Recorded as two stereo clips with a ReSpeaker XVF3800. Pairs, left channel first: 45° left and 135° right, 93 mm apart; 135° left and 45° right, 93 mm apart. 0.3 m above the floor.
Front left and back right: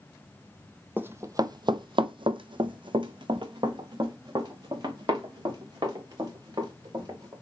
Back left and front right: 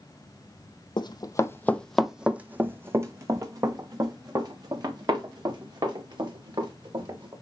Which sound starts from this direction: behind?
Running footsteps, at 1.0 s.